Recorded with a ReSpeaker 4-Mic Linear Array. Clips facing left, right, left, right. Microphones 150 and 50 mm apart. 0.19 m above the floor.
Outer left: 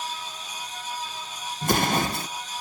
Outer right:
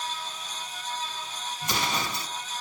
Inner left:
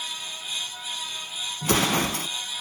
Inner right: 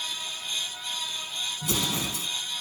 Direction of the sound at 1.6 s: 45° left (ahead or behind).